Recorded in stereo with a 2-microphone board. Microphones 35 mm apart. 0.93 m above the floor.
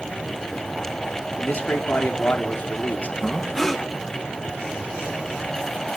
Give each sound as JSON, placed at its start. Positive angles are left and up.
{"t": 1.4, "sound": "a man speaking", "side_deg": 60, "distance_m": 1.8}
{"t": 3.2, "sound": "breathing", "side_deg": 5, "distance_m": 0.8}